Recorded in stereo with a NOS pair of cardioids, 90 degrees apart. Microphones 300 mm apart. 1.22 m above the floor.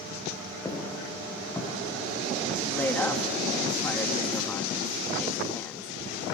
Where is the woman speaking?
5° left, 1.8 m.